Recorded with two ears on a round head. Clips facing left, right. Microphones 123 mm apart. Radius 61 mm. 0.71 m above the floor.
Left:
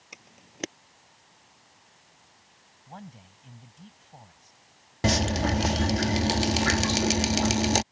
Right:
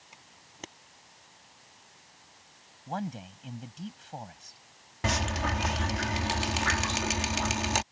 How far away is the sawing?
I don't hear sawing.